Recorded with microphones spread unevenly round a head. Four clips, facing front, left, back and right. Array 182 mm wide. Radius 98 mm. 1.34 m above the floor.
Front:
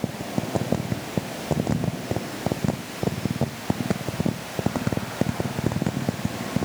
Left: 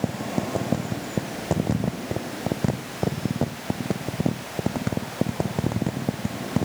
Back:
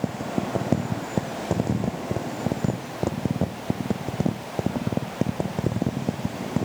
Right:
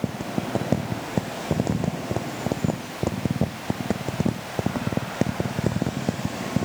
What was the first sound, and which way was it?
Only background noise.